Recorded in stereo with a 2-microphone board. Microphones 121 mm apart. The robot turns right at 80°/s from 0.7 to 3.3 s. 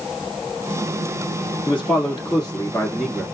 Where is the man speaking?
65° left, 1.4 m; by 3.2 s 165° right, 1.4 m.